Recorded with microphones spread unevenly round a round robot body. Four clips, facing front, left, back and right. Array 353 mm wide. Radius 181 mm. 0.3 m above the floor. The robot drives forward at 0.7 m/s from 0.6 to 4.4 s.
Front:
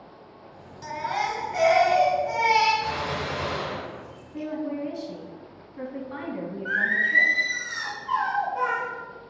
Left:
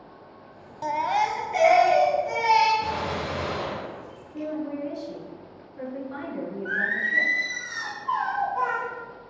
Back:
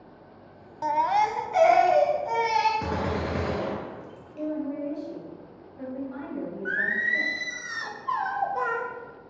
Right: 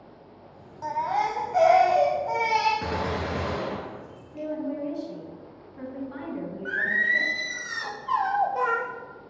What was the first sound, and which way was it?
A baby crying, 125° left.